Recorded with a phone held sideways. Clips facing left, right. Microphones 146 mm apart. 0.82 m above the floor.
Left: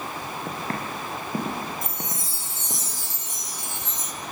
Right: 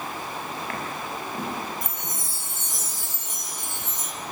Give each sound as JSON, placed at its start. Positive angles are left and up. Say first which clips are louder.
{"t": 0.5, "sound": "footsteps", "louder": "left 2 dB", "side_deg": 35, "distance_m": 4.0}
{"t": 1.8, "sound": "a chime", "louder": "left 2 dB", "side_deg": -60, "distance_m": 2.5}